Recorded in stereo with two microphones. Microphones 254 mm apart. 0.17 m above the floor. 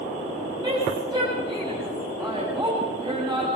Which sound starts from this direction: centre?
A woman speaking, at 0.6 s.